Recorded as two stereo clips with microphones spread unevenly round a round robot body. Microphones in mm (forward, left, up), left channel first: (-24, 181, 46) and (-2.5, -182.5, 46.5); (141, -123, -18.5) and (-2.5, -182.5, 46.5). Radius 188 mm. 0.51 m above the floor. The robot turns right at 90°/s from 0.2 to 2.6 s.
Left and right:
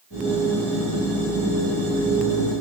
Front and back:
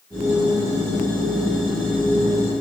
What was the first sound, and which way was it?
Only background noise.